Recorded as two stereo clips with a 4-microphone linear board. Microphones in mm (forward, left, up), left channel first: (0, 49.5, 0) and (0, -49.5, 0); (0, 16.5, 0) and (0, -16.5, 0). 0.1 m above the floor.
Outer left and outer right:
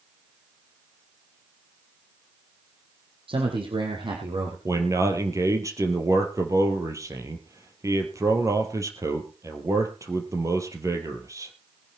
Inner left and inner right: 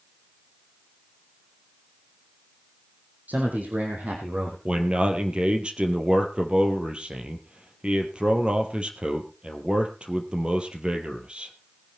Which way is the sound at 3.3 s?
60° right (ahead or behind).